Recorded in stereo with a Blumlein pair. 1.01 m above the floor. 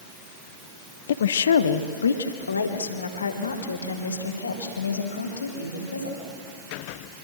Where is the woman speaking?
60° left, 1.0 m; by 6.2 s 75° left, 5 m.